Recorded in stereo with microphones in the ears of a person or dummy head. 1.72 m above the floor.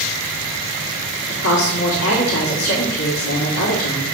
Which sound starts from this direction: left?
A woman speaking, at 1.3 s.